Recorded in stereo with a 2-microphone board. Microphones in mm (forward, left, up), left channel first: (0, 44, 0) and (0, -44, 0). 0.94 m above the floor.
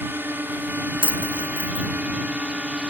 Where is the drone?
25° right (ahead or behind); by 2.9 s 15° right (ahead or behind).